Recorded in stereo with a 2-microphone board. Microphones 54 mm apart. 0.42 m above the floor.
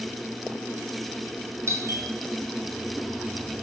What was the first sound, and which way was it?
A doorbell, 55° right (ahead or behind).